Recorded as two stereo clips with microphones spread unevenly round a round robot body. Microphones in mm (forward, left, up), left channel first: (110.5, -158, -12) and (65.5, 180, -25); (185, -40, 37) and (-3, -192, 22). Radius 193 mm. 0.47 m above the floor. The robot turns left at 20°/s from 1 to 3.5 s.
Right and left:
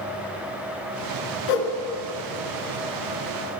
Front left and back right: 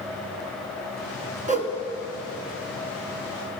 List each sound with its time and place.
1.5 s a whoosh: 80° right, 1.6 m; by 1.7 s 85° right, 1.6 m